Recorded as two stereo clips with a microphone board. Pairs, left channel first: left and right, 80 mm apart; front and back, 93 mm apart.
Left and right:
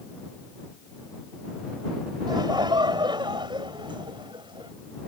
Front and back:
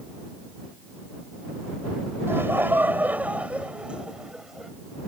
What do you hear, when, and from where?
2.3 s laughter: 115° right; by 4.7 s 95° right